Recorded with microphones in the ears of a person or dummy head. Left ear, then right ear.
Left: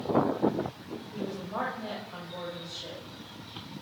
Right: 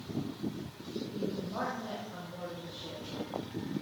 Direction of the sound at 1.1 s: 85° left.